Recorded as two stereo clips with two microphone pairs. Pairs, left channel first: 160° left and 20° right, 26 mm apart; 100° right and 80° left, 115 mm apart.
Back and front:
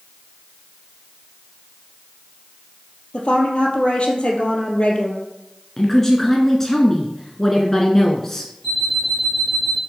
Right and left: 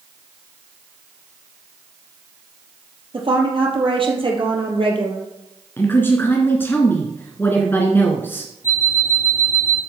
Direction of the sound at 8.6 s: 90° left.